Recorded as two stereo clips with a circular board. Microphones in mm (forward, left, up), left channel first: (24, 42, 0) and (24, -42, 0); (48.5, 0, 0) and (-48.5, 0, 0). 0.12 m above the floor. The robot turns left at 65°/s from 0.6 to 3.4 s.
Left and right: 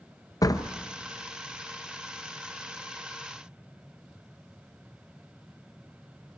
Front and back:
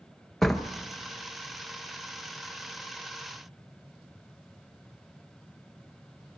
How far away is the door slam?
About 1.3 m.